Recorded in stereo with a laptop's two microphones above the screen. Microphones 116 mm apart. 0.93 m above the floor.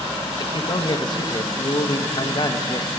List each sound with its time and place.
0.4 s a man speaking: 45° left (ahead or behind), 0.6 m